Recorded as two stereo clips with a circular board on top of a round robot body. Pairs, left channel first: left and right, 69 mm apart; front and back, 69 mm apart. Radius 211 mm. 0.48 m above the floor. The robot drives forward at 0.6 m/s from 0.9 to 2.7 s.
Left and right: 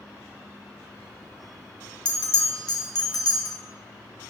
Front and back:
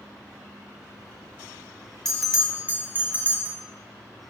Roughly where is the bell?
Left.